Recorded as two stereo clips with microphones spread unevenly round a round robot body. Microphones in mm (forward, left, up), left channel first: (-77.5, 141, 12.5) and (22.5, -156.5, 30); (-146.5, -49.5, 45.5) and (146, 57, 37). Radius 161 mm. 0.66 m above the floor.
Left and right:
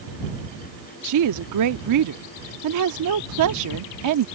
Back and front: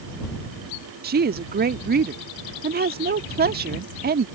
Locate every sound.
1.0 s a woman speaking: 40° right